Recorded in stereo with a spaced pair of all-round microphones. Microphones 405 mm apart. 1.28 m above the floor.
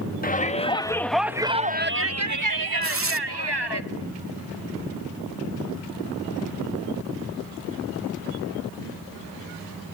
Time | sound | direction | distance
0.2 | a shout | 20° left (ahead or behind) | 1.8 m
2.8 | tearing paper | 35° right (ahead or behind) | 0.7 m